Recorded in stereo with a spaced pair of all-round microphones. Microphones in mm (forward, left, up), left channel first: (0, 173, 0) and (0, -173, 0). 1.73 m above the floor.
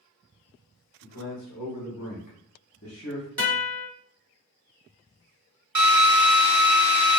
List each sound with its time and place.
1.0 s a man speaking: 85° left, 1.3 m; by 3.3 s 30° left (ahead or behind), 1.0 m
3.4 s a guitar: 45° right (ahead or behind), 1.5 m
5.8 s a drill: 55° right (ahead or behind), 0.6 m